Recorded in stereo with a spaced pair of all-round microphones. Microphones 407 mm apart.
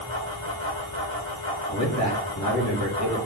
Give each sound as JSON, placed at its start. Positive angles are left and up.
{"t": 0.0, "sound": "a fan", "side_deg": 30, "distance_m": 1.8}
{"t": 1.7, "sound": "a man speaking", "side_deg": 40, "distance_m": 3.0}